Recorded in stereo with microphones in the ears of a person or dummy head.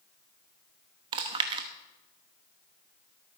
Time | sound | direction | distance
1.1 | chewing | 25° right (ahead or behind) | 0.9 m